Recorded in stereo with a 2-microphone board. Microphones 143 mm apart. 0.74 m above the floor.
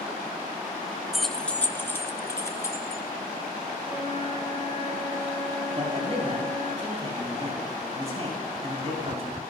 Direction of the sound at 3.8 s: 50° left (ahead or behind).